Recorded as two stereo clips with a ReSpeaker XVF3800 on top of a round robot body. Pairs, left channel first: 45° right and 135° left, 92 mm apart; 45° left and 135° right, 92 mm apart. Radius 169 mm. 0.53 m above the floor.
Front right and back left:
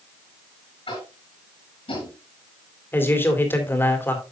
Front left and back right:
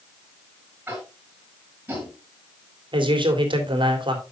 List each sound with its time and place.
0.9 s tapping: 65° right, 6 m
2.9 s a man speaking: 110° right, 3 m